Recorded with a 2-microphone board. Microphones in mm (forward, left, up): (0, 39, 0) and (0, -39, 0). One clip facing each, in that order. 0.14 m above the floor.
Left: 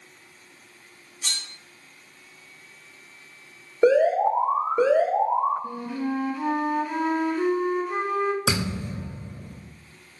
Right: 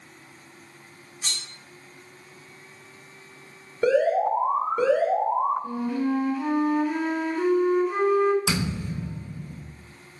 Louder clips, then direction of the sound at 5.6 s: Right 3 dB; centre (ahead or behind).